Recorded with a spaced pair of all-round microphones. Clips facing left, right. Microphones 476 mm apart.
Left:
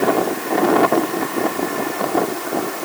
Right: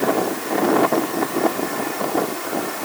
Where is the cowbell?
I don't hear a cowbell.